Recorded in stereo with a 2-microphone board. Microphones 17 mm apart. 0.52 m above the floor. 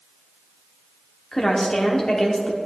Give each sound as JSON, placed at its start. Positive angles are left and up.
{"t": 1.3, "sound": "a woman speaking", "side_deg": 40, "distance_m": 1.1}